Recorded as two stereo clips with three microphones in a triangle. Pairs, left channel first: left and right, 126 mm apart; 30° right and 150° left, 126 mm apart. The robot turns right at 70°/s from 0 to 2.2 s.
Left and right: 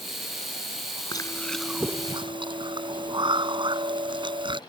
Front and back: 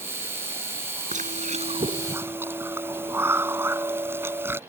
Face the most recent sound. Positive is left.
turn(degrees=-140)